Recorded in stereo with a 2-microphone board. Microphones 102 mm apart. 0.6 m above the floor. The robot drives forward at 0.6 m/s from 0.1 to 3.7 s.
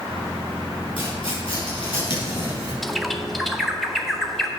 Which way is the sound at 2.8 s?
Centre (ahead or behind).